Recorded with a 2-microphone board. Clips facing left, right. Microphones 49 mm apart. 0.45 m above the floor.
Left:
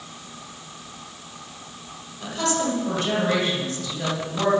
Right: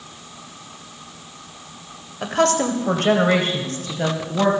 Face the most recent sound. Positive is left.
turn(degrees=-35)  # may be behind; listen again after turning